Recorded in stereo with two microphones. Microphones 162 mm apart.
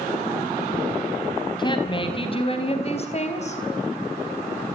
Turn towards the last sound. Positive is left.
turn(degrees=45)  # may be behind; listen again after turning